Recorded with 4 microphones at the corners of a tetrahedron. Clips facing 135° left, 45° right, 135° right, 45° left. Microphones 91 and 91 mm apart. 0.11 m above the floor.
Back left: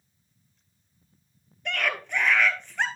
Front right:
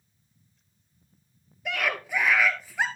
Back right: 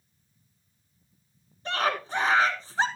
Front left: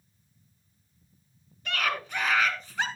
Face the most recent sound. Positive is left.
turn(degrees=-125)